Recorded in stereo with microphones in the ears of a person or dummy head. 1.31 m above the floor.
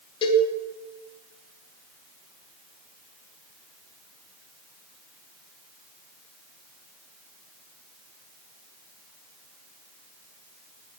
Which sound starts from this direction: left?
A cowbell, at 0.2 s.